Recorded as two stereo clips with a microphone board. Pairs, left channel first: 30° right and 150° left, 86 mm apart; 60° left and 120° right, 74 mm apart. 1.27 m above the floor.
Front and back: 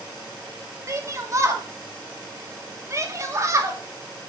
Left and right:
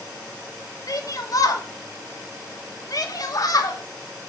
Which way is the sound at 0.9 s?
100° left.